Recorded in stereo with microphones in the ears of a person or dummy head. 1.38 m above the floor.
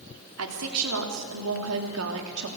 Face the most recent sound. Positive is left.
turn(degrees=-70)  # may be behind; listen again after turning